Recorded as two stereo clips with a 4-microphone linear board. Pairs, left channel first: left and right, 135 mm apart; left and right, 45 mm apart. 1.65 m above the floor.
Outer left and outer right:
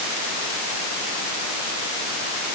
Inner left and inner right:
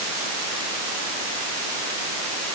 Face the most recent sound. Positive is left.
No sound to turn to.